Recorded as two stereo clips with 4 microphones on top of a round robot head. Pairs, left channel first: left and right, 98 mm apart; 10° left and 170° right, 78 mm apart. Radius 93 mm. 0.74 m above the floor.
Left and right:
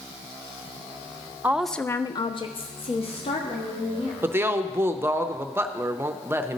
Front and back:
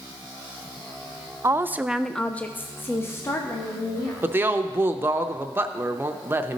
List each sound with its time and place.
1.4 s a woman speaking: 150° right, 0.6 m; by 4.1 s 65° left, 1.9 m
4.2 s a woman speaking: 135° right, 0.6 m